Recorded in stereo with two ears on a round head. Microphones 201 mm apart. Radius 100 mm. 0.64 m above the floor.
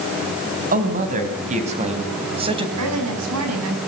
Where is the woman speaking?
80° right, 6.5 m.